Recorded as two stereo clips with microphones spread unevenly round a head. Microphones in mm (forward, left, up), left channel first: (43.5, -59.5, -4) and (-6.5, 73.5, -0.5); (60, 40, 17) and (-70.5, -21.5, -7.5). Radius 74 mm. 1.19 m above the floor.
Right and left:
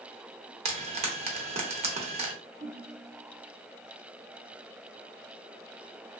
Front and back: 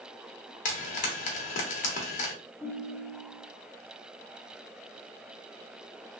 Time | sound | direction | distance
0.7 | frying | 65° left | 0.9 m
2.6 | a ringtone | 135° left | 2 m